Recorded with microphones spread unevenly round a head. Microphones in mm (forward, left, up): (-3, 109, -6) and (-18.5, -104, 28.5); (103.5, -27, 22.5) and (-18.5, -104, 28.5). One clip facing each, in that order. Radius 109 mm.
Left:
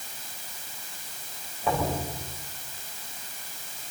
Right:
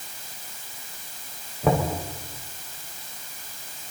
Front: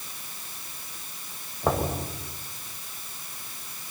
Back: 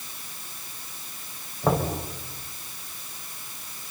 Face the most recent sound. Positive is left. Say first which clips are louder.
# right 5 dB, back 2 dB
turn(degrees=-60)